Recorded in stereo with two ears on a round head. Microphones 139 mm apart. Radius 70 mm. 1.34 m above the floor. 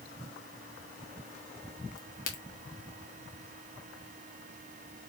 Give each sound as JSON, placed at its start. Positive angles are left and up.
{"t": 2.0, "sound": "a crack", "side_deg": 60, "distance_m": 1.4}